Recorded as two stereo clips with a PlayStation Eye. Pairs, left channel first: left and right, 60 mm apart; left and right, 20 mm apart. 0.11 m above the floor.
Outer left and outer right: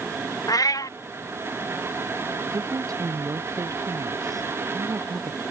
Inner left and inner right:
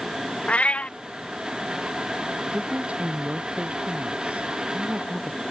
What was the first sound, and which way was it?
A cat meowing, 75° left (ahead or behind).